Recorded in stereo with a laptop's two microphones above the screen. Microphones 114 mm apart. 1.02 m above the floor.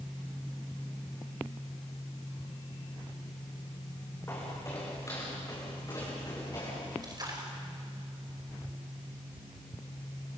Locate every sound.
4.3 s footsteps: 25° left (ahead or behind), 5 m; by 6.9 s 35° left (ahead or behind), 8 m
7.0 s a splash: 40° right (ahead or behind), 5 m